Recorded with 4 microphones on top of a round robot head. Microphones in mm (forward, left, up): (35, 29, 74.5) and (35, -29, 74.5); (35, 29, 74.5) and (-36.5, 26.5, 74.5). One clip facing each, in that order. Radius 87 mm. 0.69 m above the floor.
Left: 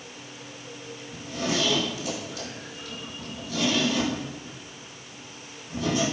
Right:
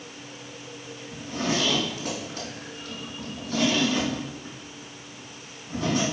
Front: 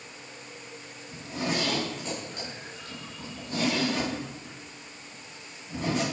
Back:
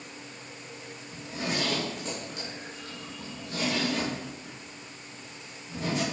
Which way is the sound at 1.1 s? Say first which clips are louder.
Right 1 dB, front 2 dB; 50° right.